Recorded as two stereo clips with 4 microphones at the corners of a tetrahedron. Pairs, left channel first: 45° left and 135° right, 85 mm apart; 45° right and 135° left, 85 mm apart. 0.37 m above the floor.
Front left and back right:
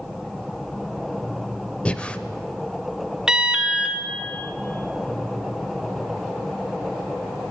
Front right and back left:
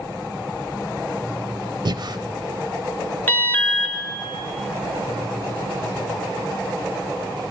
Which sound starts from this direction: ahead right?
An alarm, at 3.3 s.